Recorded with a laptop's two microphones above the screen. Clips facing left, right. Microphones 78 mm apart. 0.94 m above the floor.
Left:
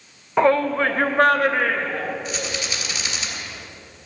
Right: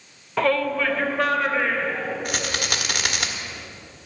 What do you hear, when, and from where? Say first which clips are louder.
0.4 s a shout: left 4 dB; 20° left (ahead or behind), 0.8 m; by 2.1 s 55° left (ahead or behind), 2.5 m
2.2 s a rattle: right 1 dB; 55° right (ahead or behind), 1.4 m